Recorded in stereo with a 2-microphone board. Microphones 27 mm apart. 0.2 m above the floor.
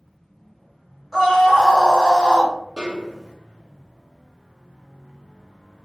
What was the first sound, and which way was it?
A scream, 5° left (ahead or behind).